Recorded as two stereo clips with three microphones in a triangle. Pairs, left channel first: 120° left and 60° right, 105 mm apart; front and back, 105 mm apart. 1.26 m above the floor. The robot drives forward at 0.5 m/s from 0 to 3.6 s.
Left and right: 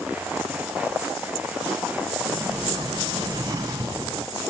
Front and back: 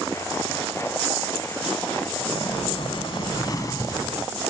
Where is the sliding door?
10° right, 1.1 m; by 4.1 s 30° right, 0.6 m.